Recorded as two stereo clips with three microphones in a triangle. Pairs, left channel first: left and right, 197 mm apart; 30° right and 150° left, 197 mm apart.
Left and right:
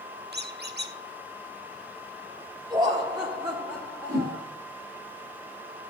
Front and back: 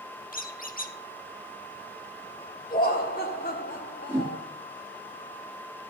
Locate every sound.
0.3 s a squeak: 70° right, 1.1 m
2.7 s laughter: 30° right, 1.7 m
4.1 s a whoosh: 130° right, 3.5 m